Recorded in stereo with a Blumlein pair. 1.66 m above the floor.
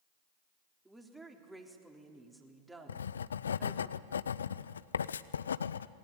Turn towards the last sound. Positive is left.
turn(degrees=70)